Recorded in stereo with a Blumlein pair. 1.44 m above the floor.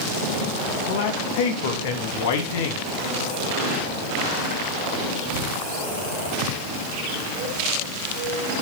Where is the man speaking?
55° left, 3 m.